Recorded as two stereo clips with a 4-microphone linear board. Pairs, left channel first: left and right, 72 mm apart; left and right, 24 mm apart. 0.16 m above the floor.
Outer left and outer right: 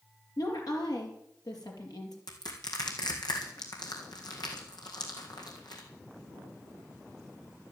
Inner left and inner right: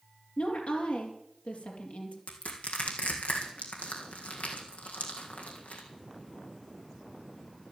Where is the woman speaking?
70° left (ahead or behind), 4.5 m.